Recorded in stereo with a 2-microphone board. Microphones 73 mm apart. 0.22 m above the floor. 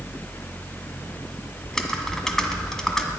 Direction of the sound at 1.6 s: 5° left (ahead or behind).